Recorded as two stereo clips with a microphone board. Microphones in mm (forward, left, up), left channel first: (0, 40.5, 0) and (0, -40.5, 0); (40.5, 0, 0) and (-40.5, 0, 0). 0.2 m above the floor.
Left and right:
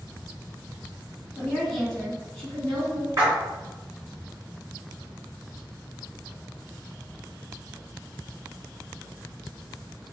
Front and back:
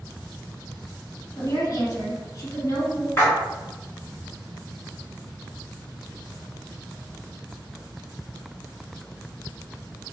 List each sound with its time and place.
1.4 s a woman speaking: 5° left, 1.5 m
3.2 s a splash: 45° right, 1.8 m